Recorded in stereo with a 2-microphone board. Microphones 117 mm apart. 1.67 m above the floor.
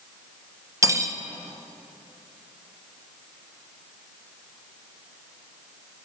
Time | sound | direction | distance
0.8 | cutlery clinking | 25° right (ahead or behind) | 0.8 m